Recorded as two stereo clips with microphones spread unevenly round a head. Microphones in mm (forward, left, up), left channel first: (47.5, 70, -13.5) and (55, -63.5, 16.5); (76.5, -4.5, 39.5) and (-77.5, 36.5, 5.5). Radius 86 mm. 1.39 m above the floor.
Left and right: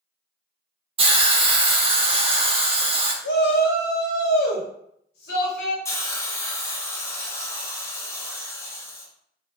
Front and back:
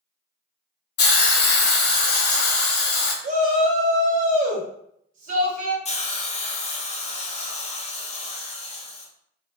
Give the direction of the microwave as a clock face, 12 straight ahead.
I don't hear a microwave.